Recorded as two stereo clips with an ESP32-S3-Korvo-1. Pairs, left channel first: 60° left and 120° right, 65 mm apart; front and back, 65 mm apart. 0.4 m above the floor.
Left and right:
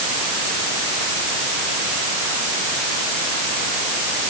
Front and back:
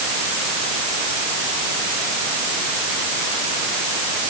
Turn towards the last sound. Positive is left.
No sound to turn to.